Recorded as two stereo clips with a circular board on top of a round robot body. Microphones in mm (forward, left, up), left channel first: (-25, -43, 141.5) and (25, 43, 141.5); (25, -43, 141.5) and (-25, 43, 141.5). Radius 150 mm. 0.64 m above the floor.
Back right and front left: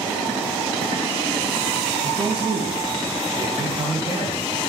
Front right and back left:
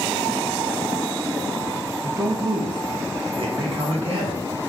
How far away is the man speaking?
About 0.7 m.